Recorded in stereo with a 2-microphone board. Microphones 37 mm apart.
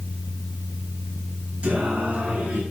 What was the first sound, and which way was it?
Singing, 40° right (ahead or behind).